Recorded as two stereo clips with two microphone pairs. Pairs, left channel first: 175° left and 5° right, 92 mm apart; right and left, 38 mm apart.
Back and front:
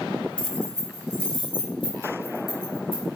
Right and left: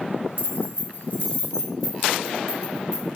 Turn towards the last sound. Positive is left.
turn(degrees=160)